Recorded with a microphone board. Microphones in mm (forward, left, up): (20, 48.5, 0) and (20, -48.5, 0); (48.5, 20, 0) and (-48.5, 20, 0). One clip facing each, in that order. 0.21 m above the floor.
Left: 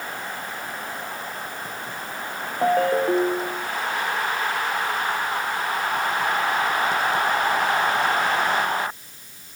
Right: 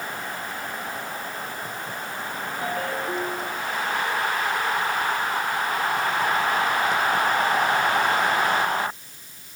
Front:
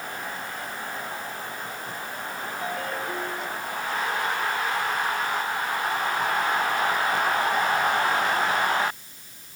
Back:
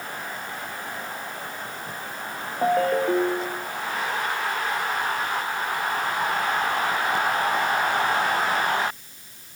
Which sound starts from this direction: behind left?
A ringtone, at 2.6 s.